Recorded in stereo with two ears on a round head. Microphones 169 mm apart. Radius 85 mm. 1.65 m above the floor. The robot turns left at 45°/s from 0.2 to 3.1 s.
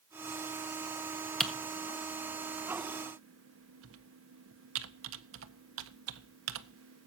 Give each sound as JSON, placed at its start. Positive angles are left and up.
{"t": 1.4, "sound": "typing on a keyboard", "side_deg": 0, "distance_m": 1.5}